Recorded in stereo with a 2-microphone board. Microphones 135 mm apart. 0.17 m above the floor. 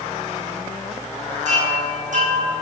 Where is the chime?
65° right (ahead or behind), 2.5 m.